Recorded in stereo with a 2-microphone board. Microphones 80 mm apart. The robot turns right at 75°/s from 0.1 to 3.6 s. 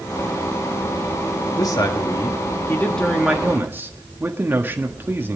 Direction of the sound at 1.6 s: 60° left.